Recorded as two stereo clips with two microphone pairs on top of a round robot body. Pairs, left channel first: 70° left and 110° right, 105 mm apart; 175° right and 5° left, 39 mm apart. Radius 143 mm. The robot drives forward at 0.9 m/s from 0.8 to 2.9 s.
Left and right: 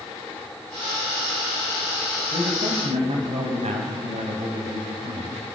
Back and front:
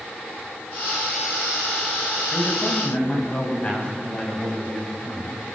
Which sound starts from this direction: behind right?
A man speaking, at 2.3 s.